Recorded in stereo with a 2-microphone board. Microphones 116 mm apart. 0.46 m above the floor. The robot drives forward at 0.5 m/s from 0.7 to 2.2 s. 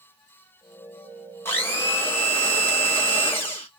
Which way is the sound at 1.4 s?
20° left (ahead or behind).